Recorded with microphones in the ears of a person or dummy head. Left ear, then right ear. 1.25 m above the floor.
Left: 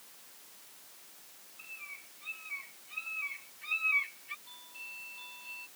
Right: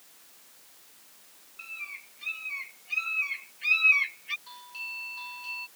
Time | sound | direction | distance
1.6 | a bird | 50° right (ahead or behind) | ?
4.5 | a doorbell | 45° right (ahead or behind) | ?